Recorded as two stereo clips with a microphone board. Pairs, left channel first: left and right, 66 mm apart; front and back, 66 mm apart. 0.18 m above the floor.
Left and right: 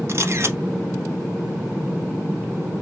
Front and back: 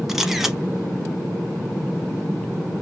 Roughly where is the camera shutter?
Right.